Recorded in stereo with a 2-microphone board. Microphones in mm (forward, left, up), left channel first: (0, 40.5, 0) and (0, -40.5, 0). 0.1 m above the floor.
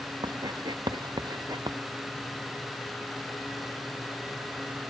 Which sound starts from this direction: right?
Writing, at 0.2 s.